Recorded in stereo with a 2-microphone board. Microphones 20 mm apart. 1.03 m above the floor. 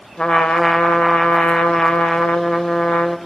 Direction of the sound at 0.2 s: 50° left (ahead or behind).